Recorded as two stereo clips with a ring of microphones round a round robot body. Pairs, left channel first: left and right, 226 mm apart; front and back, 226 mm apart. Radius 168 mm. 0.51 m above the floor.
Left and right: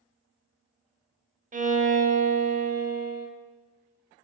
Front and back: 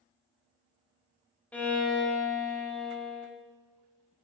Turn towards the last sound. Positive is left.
turn(degrees=-80)